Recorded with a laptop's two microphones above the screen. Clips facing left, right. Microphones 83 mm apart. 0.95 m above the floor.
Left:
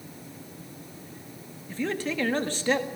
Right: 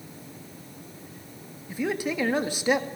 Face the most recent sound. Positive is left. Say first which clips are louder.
# right 1 dB
turn(degrees=-10)  # may be behind; listen again after turning